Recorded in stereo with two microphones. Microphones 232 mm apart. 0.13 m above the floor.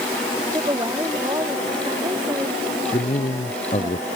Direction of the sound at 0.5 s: 15° right (ahead or behind).